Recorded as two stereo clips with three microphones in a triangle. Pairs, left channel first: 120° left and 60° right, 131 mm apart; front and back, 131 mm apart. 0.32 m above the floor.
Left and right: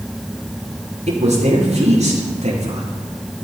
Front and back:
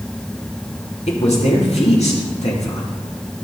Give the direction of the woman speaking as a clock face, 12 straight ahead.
1 o'clock.